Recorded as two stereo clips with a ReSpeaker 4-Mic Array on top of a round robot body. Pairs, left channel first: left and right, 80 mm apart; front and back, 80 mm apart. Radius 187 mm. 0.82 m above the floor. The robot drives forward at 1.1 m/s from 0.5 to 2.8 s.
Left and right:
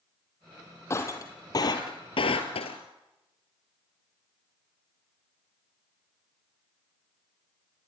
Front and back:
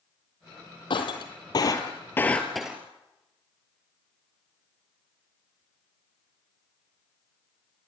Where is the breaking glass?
30° left, 2.5 m; by 2.8 s 100° left, 1.3 m.